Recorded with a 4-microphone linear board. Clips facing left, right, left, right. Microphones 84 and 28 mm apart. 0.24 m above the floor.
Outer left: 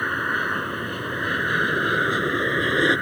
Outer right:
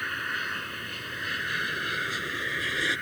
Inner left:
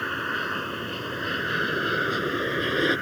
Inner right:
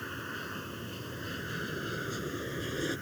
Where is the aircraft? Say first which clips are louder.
Outer left 8 dB, inner left 11 dB; 40° left (ahead or behind); by 3.0 s 45° left (ahead or behind).